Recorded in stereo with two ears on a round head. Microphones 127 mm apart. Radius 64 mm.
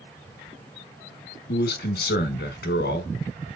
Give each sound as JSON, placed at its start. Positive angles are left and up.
{"t": 1.5, "sound": "a man speaking", "side_deg": 75, "distance_m": 1.5}